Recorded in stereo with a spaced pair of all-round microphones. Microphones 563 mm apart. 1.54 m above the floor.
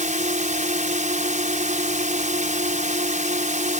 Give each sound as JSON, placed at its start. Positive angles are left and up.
{"t": 0.0, "sound": "a drone", "side_deg": -15}